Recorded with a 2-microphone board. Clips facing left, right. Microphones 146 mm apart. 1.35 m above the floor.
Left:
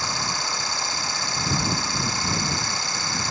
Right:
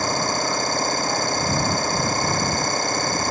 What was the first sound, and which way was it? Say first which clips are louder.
An engine running: right 7 dB; 50° right (ahead or behind).